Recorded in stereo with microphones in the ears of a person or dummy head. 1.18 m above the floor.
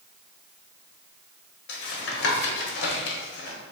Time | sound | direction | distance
1.7 | tapping | 65° left (ahead or behind) | 1.1 m